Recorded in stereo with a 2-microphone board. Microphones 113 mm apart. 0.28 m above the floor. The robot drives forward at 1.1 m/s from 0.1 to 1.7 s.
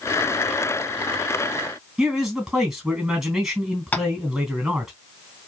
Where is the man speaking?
5° right (ahead or behind), 3 m.